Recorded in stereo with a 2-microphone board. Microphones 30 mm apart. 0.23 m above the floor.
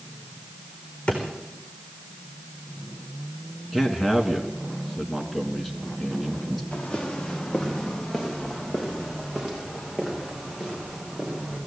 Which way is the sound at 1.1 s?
35° left (ahead or behind).